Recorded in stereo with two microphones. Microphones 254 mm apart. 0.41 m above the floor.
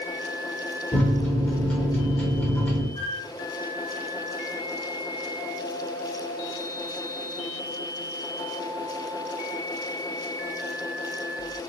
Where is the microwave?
5° left (ahead or behind), 0.7 m.